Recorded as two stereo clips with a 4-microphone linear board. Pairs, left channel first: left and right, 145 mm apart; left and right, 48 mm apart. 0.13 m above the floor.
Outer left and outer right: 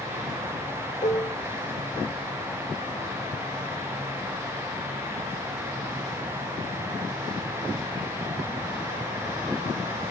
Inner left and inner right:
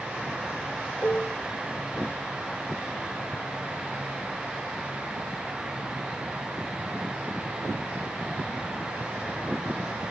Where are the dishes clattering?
50° left (ahead or behind), 1.3 m.